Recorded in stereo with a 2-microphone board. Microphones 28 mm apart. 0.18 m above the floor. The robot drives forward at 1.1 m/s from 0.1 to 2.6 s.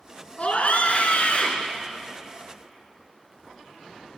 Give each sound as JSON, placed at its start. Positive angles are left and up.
{"t": 0.4, "sound": "a scream", "side_deg": 50, "distance_m": 2.0}